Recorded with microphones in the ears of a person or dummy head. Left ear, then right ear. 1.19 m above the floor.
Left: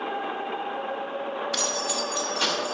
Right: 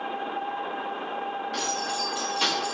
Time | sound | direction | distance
1.5 | keys jangling | 45° left (ahead or behind) | 1.1 m